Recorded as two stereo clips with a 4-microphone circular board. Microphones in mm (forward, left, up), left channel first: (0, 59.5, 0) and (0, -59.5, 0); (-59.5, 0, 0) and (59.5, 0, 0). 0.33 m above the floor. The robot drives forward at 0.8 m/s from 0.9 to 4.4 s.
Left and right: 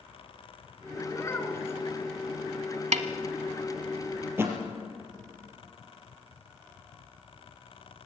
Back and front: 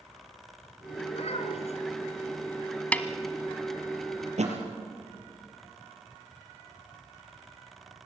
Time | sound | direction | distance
1.1 | a child speaking | 155° left | 3 m
2.9 | a snare drum | 105° right | 1.0 m
4.2 | a thud | 20° right | 3.5 m